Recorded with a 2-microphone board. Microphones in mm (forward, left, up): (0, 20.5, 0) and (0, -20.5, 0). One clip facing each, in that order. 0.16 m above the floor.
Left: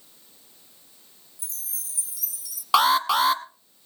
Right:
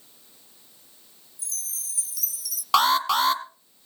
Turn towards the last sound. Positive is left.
turn(degrees=5)  # may be behind; listen again after turning